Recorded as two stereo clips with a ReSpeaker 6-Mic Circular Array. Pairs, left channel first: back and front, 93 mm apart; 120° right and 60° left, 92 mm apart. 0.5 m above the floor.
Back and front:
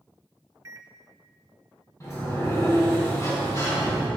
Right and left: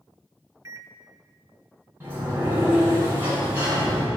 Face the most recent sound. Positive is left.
turn(degrees=125)